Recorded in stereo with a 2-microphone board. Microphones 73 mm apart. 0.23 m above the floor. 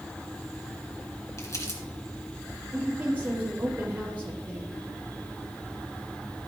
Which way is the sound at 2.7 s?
25° right (ahead or behind).